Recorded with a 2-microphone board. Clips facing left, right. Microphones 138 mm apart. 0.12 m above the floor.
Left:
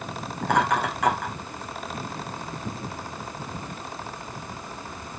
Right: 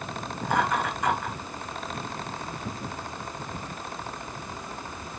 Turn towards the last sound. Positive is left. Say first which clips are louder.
# left 3 dB
turn(degrees=75)  # may be behind; listen again after turning